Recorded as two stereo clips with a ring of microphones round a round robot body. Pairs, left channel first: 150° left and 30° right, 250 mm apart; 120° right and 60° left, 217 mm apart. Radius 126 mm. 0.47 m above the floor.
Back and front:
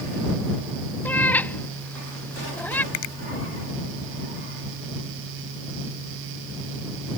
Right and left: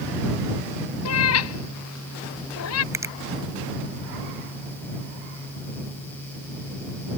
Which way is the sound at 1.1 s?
125° right.